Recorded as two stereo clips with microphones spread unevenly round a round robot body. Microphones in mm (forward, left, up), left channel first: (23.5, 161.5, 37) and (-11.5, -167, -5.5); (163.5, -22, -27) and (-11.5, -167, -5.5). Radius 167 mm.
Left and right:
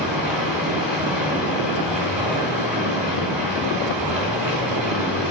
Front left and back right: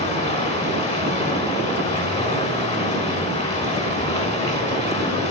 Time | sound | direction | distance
0.0 | running water | 15° right | 1.8 m